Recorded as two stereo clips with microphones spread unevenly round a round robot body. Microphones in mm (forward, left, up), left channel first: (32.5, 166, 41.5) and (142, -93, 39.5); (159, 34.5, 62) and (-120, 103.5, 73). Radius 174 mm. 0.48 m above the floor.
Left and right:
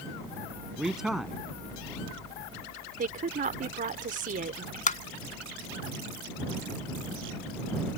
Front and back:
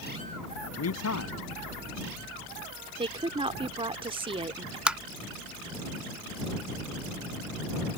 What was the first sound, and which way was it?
A man speaking, 20° left.